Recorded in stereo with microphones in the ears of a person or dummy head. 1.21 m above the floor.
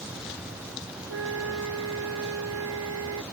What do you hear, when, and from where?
1.1 s a flute: 80° right